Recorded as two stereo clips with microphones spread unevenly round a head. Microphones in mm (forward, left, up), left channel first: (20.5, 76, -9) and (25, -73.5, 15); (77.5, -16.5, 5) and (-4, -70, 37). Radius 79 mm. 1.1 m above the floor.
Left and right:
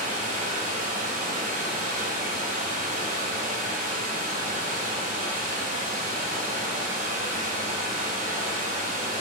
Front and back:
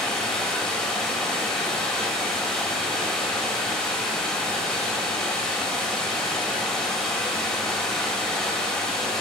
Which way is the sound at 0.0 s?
50° right.